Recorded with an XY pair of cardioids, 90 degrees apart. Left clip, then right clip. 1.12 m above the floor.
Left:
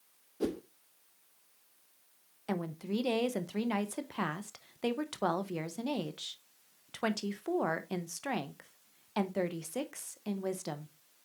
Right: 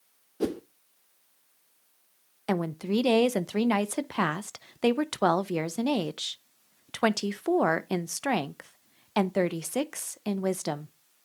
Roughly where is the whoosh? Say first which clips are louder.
Right 5 dB; ahead right.